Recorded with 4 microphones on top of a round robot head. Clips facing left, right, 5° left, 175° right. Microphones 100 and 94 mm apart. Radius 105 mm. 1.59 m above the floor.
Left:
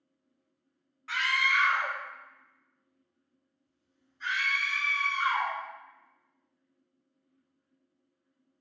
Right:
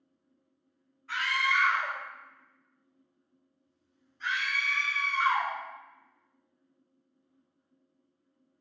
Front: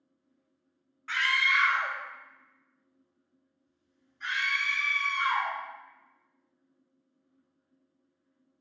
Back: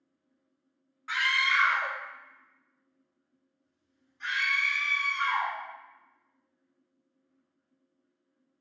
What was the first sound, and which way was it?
A scream, 110° left.